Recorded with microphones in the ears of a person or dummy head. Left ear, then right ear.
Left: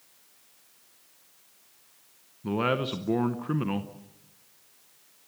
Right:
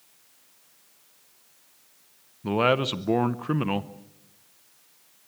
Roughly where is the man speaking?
Centre.